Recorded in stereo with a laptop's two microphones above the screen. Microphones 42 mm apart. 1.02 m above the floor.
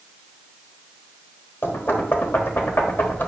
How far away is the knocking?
About 1.1 m.